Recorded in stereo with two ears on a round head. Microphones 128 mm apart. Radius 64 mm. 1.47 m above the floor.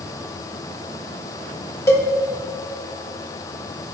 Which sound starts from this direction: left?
A cowbell, at 1.9 s.